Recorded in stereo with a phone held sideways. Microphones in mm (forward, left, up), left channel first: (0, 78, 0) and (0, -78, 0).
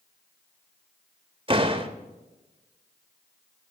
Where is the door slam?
35° right (ahead or behind), 1.1 m.